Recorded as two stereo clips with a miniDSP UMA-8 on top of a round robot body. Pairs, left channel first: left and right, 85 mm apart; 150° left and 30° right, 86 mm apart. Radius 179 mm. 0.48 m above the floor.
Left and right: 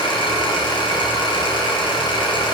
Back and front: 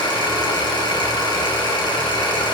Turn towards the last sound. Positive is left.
turn(degrees=115)